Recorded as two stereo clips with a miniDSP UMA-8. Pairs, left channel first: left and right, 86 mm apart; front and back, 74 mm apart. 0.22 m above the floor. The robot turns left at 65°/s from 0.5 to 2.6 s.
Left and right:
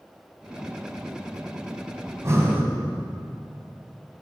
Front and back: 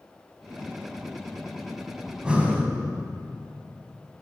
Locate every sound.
2.1 s breathing: 100° right, 1.1 m; by 2.7 s 135° right, 1.1 m